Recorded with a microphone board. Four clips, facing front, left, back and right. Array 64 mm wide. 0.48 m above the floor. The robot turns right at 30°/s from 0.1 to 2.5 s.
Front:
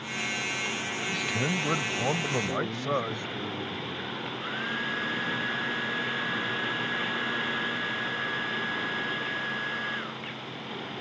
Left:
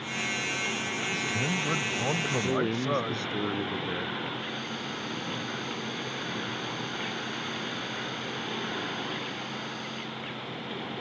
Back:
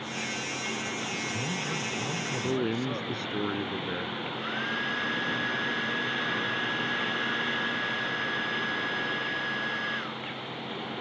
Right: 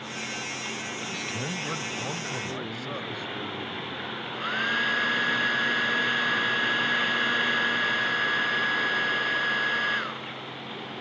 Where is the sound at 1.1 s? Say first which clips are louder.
Left 4 dB, front 3 dB; 15° right; by 3.3 s 30° left.